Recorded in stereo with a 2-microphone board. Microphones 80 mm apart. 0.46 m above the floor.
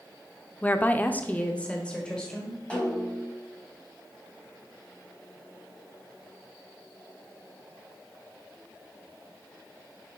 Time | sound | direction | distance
0.6 | a woman speaking | 20° left (ahead or behind) | 0.7 m
2.7 | a snare drum | 15° left (ahead or behind) | 4 m